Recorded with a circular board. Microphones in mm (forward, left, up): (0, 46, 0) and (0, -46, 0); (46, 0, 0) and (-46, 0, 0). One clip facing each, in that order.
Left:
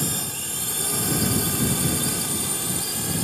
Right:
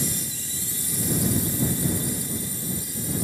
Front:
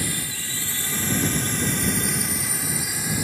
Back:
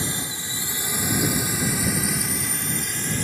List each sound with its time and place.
0.0 s a drone: 115° left; by 3.2 s 80° left